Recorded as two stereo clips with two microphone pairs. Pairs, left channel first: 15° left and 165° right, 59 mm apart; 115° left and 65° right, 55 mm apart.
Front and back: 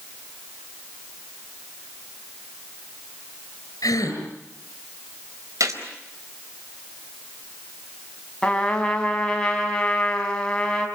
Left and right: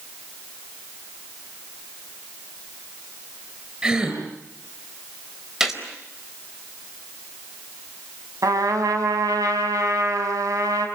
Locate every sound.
3.8 s a gasp: 5° left, 6 m
5.6 s a gunshot: 150° right, 4.5 m
8.4 s a trumpet: 60° right, 4.5 m